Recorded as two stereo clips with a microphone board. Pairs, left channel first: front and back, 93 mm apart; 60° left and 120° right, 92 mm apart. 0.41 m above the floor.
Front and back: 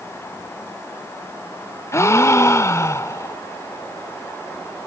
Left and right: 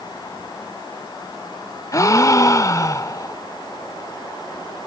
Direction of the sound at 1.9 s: 35° left.